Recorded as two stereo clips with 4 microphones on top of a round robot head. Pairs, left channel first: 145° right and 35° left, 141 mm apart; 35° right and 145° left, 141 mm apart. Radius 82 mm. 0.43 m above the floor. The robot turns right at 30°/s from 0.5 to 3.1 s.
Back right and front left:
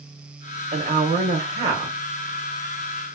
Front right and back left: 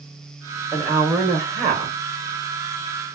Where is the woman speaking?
65° left, 1.2 m; by 2.0 s 100° left, 1.2 m.